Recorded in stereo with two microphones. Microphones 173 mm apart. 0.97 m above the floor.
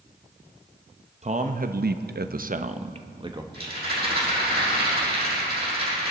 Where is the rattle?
65° right (ahead or behind), 6 m.